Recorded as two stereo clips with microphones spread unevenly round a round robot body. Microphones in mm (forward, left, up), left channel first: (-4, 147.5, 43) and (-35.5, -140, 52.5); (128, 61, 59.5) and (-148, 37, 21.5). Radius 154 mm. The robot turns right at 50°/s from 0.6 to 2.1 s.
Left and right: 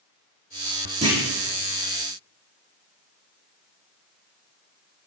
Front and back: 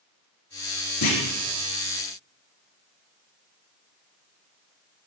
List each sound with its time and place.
1.0 s a clunk: 25° right, 6 m; by 1.2 s 15° right, 6 m